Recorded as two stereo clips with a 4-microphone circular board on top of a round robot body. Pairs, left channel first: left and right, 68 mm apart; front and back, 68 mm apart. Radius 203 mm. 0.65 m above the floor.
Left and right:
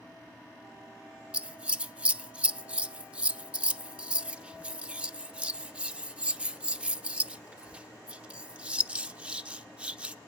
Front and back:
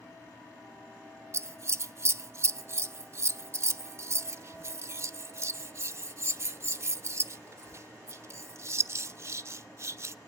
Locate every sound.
1.3 s scissors: 155° right, 0.7 m